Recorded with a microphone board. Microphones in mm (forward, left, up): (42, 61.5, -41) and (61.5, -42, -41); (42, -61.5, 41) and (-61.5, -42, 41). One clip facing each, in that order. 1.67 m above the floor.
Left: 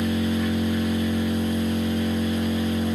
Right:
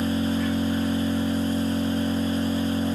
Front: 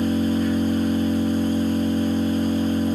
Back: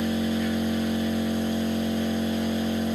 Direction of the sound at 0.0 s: 35° left.